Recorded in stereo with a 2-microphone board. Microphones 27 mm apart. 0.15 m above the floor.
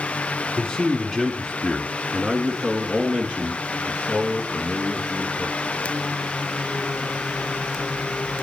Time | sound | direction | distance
0.6 | a man speaking | 10° left (ahead or behind) | 1.4 m